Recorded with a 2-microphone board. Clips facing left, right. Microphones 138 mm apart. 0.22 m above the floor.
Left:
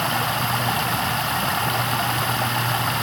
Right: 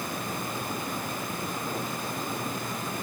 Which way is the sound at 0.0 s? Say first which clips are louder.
Left 9 dB; 85° left.